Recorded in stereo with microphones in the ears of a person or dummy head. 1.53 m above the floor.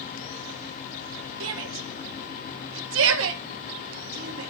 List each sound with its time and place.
1.4 s a shout: 75° right (ahead or behind), 1.7 m